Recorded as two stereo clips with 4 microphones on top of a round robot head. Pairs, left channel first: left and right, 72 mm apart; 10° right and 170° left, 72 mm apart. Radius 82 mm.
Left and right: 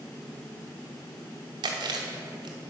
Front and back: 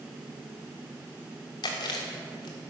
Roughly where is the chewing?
Ahead right.